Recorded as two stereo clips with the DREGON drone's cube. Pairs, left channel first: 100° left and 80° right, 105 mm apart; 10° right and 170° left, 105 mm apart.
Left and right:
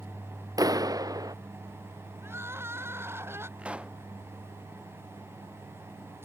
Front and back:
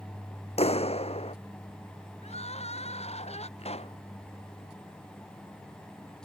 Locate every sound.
0.6 s a clap: 25° right
2.2 s crying: 10° right
3.6 s a pop: straight ahead